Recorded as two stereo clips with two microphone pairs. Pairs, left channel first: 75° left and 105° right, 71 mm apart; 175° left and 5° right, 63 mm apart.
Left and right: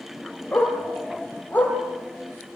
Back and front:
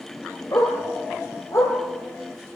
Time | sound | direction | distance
0.5 | a dog barking | 145° left | 6.5 m